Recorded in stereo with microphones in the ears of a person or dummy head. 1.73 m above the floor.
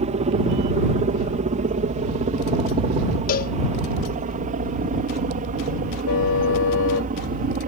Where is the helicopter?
35° right (ahead or behind); by 7.7 s 45° right (ahead or behind).